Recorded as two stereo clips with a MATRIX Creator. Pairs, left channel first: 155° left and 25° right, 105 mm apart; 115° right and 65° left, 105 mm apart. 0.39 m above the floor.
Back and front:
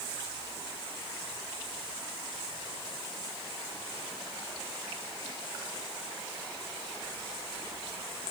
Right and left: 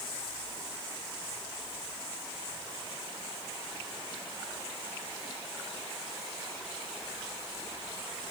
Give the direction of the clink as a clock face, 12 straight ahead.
I don't hear a clink.